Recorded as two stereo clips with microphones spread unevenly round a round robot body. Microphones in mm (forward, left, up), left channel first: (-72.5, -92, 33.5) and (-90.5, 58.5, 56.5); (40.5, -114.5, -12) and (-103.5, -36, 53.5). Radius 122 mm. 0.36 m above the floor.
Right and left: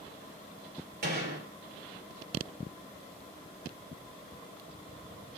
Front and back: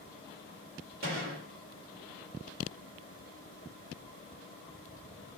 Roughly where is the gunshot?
Left.